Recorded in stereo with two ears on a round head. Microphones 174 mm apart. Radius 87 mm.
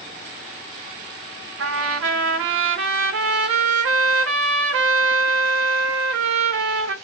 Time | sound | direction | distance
1.6 | a trumpet | 70° right (ahead or behind) | 0.9 m